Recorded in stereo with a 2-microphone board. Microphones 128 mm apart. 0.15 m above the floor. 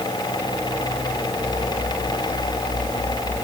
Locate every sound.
Only background noise.